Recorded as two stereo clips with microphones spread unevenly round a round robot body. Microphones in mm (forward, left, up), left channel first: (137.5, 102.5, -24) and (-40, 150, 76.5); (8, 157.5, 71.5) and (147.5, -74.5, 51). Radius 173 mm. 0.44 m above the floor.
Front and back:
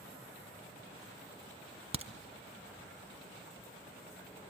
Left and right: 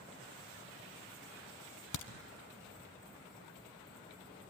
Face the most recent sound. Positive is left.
turn(degrees=110)